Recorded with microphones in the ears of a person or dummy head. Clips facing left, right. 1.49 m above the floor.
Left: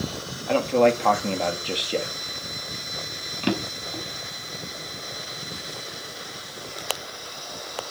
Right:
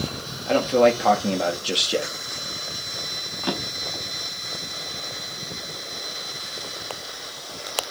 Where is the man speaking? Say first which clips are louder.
Right 2 dB; 10° right (ahead or behind), 2 m.